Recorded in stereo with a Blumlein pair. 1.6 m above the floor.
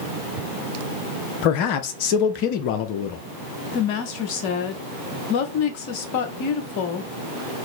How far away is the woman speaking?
About 0.9 m.